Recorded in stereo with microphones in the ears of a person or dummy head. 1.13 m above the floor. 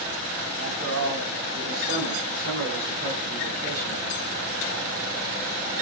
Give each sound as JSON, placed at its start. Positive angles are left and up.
{"t": 0.6, "sound": "a man speaking", "side_deg": -70, "distance_m": 10.0}